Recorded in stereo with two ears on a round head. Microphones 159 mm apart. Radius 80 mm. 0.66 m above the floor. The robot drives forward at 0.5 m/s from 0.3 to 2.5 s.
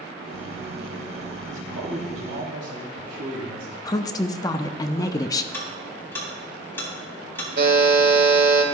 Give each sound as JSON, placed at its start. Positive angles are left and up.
{"t": 1.5, "sound": "a man speaking", "side_deg": -70, "distance_m": 3.5}
{"t": 3.9, "sound": "a woman speaking", "side_deg": 20, "distance_m": 0.6}
{"t": 5.5, "sound": "ticking", "side_deg": 15, "distance_m": 3.5}
{"t": 7.6, "sound": "a buzzer", "side_deg": -60, "distance_m": 1.8}